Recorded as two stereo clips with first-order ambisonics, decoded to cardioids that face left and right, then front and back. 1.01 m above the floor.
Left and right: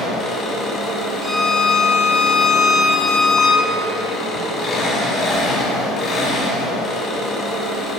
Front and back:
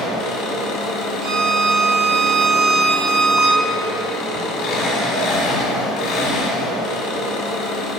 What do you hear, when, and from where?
0.0 s an engine running: 35° left, 1.3 m
1.2 s a violin: straight behind, 0.9 m